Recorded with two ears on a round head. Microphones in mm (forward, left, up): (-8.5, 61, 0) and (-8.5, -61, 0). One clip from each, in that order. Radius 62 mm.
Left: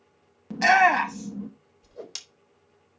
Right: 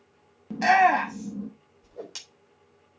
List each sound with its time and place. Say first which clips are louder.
0.5 s a shout: left 1 dB; 30° left (ahead or behind), 0.9 m
1.8 s a whoosh: left 1 dB; 35° left (ahead or behind), 3.5 m